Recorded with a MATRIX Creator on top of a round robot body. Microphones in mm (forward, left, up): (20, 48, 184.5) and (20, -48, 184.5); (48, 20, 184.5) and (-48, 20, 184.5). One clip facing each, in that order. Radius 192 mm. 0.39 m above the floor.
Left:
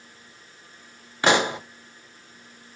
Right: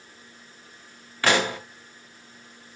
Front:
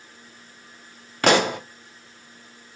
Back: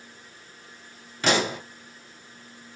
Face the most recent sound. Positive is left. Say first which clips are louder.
# left 2 dB, front 5 dB
turn(degrees=20)